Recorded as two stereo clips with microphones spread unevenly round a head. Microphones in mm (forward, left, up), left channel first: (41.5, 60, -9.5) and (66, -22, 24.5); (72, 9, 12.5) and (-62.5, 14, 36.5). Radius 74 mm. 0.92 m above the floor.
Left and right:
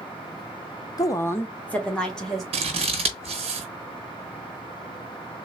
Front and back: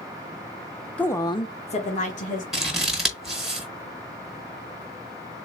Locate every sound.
1.0 s a woman speaking: 75° left, 0.6 m; by 2.4 s 25° left, 1.5 m
2.5 s scissors: 85° right, 1.1 m